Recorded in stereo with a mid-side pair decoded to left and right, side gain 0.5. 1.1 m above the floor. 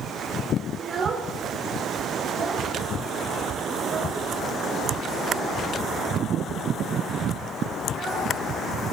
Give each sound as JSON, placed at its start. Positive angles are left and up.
{"t": 0.8, "sound": "a child speaking", "azimuth_deg": -40, "distance_m": 2.5}